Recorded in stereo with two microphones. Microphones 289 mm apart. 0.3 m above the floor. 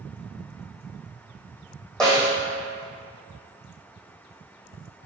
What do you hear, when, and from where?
2.0 s a snare drum: centre (ahead or behind), 2.5 m